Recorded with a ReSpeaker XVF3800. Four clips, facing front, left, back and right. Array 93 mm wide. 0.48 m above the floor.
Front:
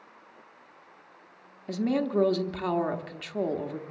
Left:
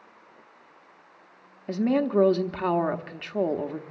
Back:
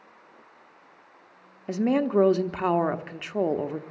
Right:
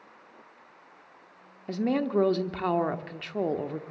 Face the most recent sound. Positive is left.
turn(degrees=165)